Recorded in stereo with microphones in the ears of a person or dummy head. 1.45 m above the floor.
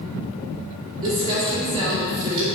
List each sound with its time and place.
1.0 s crumpling: 35° right (ahead or behind), 2.5 m